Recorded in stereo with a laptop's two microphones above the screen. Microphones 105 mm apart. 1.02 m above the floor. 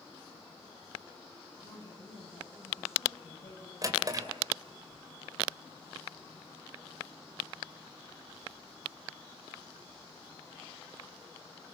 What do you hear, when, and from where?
1.5 s a woman speaking: 80° left, 8 m
3.8 s a drawer: 35° right (ahead or behind), 2.5 m